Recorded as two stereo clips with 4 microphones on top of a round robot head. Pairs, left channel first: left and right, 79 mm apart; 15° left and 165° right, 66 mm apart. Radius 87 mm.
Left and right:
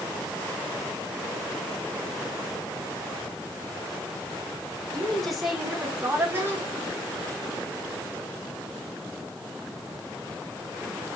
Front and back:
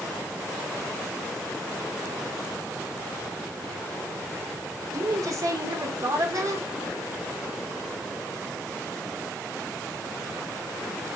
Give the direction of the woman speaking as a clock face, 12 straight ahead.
6 o'clock.